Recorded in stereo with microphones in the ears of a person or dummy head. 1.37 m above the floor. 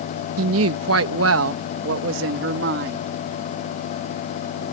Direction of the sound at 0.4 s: 75° right (ahead or behind).